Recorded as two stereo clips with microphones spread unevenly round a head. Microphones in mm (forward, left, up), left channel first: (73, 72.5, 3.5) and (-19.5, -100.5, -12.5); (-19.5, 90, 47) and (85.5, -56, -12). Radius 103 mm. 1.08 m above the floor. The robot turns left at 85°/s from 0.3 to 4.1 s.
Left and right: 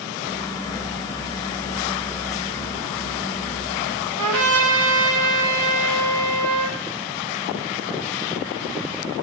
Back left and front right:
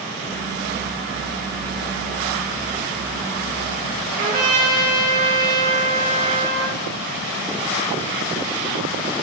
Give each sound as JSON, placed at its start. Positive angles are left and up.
{"t": 4.2, "sound": "a trumpet", "azimuth_deg": -130, "distance_m": 2.5}